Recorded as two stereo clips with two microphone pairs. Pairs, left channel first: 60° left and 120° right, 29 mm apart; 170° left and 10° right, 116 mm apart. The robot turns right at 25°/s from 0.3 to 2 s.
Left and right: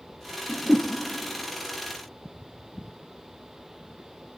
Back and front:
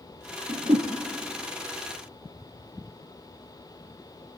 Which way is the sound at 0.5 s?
35° right.